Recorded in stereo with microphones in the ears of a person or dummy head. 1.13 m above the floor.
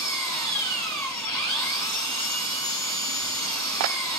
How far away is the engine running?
About 8 m.